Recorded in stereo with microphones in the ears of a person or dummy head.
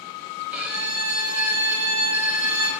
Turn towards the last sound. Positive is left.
turn(degrees=-5)  # may be behind; listen again after turning